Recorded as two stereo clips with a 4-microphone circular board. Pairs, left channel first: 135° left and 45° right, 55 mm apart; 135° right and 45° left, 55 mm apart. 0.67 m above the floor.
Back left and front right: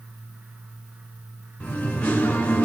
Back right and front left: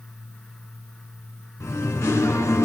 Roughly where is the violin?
I don't hear a violin.